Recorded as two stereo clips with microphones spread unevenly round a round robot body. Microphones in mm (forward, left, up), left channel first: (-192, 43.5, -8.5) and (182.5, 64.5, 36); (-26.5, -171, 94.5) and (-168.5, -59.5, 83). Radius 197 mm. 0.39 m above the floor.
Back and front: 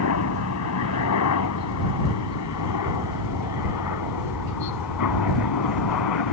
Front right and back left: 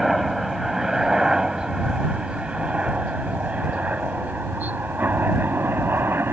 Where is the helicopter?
130° right; by 6.3 s 140° right.